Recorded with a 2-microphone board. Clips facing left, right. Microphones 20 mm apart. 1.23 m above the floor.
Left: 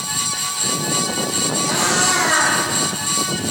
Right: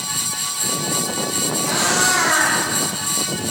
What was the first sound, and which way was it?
A cat meowing, centre (ahead or behind).